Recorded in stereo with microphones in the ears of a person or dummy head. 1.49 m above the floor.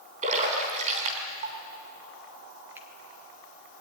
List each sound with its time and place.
0.2 s a splash: 40° right (ahead or behind), 3.5 m
2.8 s a finger snap: 10° right (ahead or behind), 2.5 m